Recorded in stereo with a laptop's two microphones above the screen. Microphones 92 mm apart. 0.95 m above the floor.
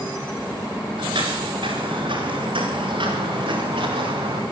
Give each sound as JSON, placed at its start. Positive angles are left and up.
{"t": 1.0, "sound": "footsteps", "side_deg": -70, "distance_m": 9.5}